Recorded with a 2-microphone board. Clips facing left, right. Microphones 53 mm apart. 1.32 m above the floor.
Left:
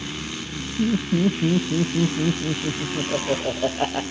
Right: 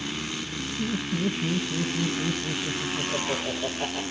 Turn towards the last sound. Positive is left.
turn(degrees=50)  # may be behind; listen again after turning